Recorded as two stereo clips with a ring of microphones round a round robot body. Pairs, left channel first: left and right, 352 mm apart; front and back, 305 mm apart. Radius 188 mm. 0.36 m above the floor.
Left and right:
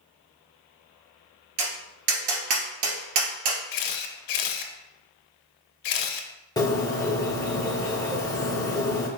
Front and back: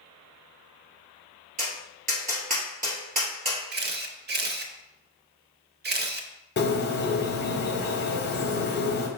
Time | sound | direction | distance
1.6 | tapping | 110° right | 1.8 m
3.7 | a camera shutter | 120° left | 0.6 m
6.6 | a bird | 15° left | 0.9 m